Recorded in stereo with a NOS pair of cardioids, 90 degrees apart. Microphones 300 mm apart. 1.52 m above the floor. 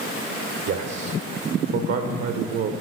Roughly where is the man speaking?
Ahead right.